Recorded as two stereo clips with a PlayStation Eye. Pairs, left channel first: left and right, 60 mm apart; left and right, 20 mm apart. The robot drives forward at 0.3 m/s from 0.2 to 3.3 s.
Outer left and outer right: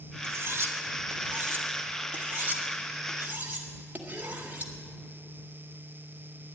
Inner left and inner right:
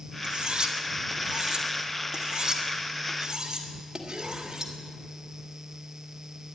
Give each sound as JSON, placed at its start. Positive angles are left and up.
{"t": 0.2, "sound": "cutlery clinking", "side_deg": -50, "distance_m": 1.2}